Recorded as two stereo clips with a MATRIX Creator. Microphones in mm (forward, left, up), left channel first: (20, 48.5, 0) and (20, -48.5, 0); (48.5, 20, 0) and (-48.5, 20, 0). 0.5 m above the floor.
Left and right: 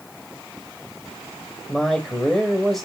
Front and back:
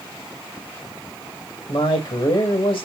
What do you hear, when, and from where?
1.7 s a man speaking: 5° left, 2 m